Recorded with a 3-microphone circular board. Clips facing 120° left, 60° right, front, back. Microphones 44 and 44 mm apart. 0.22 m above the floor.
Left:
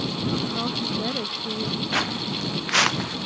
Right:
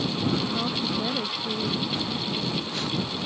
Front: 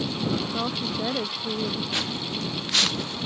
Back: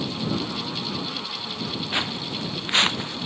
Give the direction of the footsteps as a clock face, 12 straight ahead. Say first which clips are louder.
Left 3 dB, back 2 dB; 8 o'clock.